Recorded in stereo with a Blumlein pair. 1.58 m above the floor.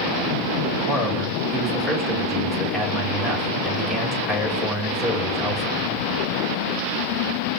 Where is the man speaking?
10° right, 2 m.